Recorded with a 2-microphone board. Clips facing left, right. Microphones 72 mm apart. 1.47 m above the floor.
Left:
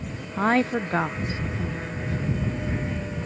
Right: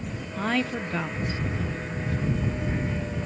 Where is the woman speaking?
35° left (ahead or behind); by 2.2 s 40° left (ahead or behind).